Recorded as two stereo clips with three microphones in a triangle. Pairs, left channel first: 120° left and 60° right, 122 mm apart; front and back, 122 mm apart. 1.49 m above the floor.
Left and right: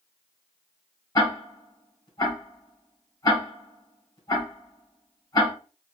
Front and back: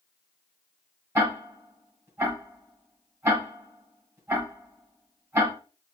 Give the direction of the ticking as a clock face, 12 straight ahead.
7 o'clock.